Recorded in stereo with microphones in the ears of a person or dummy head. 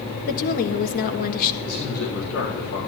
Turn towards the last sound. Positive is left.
turn(degrees=80)